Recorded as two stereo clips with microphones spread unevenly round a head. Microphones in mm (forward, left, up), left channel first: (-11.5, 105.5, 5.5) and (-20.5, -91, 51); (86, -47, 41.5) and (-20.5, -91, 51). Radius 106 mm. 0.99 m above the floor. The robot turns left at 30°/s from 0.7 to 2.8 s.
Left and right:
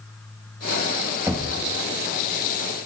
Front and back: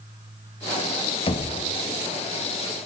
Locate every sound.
1.3 s knocking: 10° right, 1.4 m; by 1.5 s 15° right, 1.4 m